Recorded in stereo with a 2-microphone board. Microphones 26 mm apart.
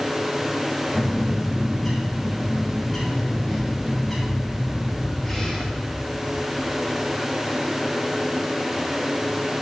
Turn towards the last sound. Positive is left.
turn(degrees=10)  # may be behind; listen again after turning